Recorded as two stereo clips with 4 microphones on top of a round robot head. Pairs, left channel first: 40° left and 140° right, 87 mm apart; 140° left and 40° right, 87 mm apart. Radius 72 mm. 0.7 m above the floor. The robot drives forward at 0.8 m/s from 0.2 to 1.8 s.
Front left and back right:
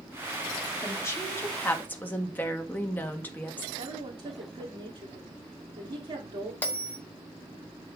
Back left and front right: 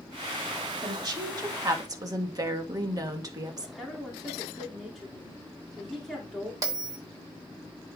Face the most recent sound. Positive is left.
turn(degrees=-25)